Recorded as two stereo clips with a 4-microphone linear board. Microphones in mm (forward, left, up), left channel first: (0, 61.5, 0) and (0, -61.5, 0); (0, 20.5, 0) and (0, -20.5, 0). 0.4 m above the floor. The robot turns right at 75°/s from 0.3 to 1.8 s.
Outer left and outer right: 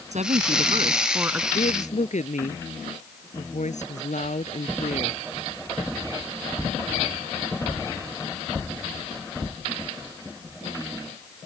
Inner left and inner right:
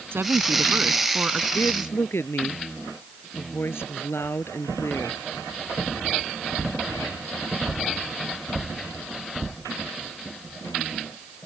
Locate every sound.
0.1 s a woman speaking: 90° right; by 1.4 s 10° right
1.5 s a woman speaking: 75° left (ahead or behind)